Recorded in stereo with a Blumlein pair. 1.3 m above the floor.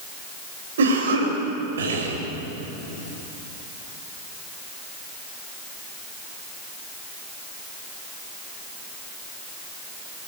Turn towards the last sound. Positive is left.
turn(degrees=-60)